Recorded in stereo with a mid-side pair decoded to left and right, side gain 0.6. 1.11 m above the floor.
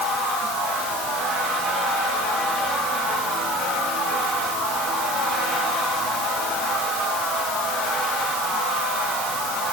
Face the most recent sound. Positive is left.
No sound to turn to.